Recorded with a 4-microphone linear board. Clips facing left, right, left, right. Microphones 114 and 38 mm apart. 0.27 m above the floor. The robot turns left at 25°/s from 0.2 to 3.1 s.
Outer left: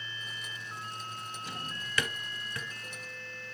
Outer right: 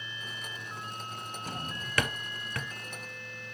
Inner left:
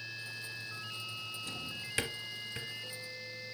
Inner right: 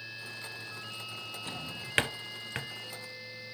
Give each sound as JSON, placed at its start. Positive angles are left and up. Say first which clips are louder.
{"t": 1.5, "sound": "a drawer", "louder": "outer right 3 dB, inner right 1 dB", "side_deg": -40, "distance_m": 0.5}